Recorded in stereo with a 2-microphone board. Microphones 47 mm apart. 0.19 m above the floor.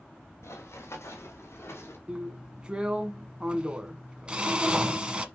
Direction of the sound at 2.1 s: 25° right (ahead or behind).